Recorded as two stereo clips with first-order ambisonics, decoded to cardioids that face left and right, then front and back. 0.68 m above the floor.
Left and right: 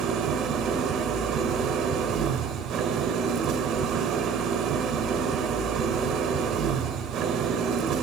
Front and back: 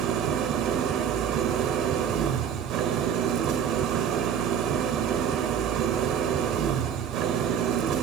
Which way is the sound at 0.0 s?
140° right.